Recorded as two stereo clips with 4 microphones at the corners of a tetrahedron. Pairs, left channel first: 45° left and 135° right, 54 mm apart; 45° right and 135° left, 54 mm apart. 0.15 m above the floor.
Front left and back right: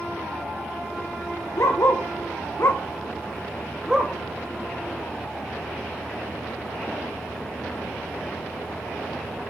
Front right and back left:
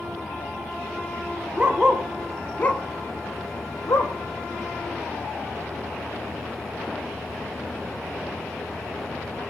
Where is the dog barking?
70° left, 1.9 m; by 4.1 s 55° right, 2.5 m.